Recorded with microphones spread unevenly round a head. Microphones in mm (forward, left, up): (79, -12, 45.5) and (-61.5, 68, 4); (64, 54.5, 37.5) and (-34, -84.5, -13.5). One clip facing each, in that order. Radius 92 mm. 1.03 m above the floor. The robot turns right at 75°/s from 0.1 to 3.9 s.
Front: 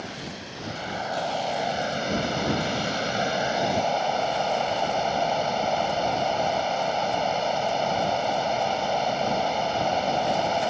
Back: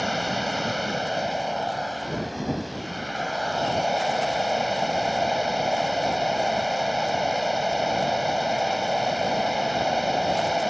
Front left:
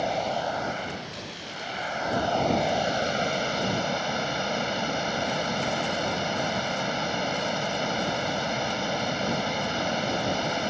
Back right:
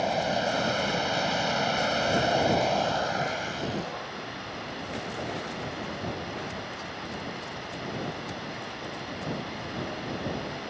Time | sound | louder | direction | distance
0.0 | running water | back 10 dB, back right 1 dB | 140° left | ?